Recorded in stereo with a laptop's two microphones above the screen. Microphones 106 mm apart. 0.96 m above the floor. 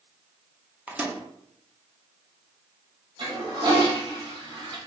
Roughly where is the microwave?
Centre.